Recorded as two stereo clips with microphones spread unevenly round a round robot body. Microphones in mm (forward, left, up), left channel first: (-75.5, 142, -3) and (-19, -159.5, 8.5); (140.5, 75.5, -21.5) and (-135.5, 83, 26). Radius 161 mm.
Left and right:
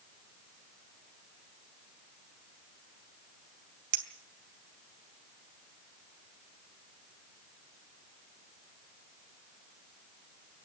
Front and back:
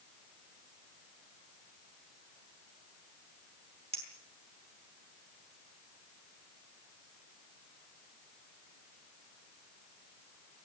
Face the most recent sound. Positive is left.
turn(degrees=-105)